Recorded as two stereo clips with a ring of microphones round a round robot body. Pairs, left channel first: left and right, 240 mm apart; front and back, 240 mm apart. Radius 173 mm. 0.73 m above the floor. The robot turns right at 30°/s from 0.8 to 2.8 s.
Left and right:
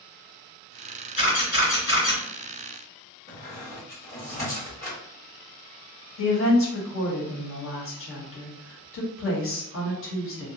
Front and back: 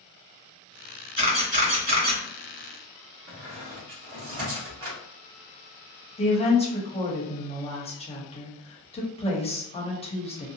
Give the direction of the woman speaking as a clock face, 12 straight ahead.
10 o'clock.